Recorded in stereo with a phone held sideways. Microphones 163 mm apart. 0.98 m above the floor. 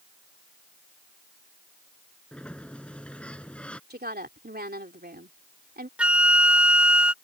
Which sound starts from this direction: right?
A woman speaking, at 3.9 s.